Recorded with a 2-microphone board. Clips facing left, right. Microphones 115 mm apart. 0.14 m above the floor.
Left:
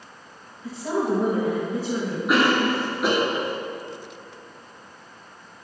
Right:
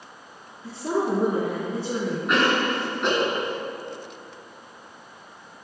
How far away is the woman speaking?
About 1.9 m.